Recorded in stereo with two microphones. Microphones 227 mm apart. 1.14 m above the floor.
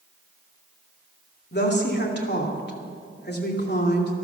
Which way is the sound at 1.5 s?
45° left (ahead or behind).